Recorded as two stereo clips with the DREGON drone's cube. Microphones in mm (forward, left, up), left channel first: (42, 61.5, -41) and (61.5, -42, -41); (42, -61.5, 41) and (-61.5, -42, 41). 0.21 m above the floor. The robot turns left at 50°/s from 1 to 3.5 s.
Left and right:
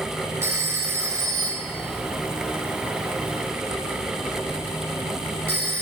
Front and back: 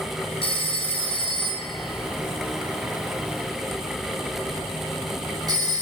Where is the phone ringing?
20° right, 1.3 m; by 5.8 s 145° right, 1.3 m.